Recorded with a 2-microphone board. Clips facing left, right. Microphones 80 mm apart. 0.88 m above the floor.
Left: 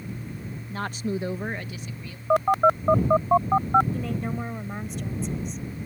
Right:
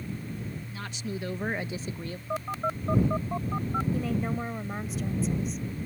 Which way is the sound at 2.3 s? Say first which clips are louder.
Left 12 dB; 75° left (ahead or behind).